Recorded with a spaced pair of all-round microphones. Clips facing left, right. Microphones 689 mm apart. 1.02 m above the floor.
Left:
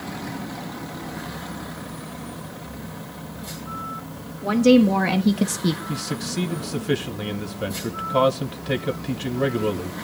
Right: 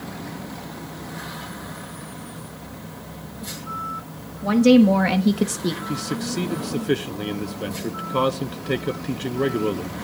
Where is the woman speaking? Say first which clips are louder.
Right 1 dB; 30° right (ahead or behind), 1.6 m; by 5.8 s 55° left (ahead or behind), 0.6 m.